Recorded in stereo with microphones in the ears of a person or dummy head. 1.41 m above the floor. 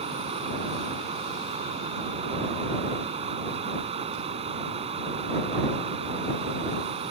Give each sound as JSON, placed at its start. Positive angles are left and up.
{"t": 0.0, "sound": "running water", "side_deg": -30}